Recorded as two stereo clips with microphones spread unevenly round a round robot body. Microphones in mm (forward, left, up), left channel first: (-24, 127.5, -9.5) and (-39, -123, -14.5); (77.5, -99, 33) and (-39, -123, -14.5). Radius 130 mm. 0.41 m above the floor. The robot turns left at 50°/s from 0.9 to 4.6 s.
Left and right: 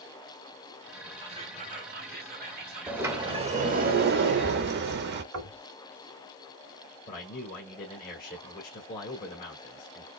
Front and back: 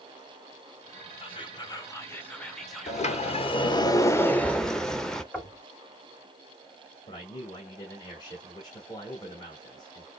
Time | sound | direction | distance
1.2 | whispering | 35° right | 1.2 m
2.9 | a sliding door | 10° right | 0.8 m
5.3 | knocking | 85° right | 2.5 m
7.1 | a man speaking | 90° left | 1.3 m